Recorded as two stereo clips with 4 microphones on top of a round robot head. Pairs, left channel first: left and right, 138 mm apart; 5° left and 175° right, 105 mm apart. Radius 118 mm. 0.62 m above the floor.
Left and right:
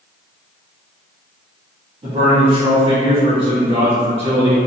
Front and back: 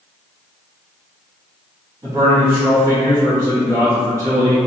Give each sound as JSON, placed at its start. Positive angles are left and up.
{"t": 2.0, "sound": "a man speaking", "azimuth_deg": -120, "distance_m": 1.7}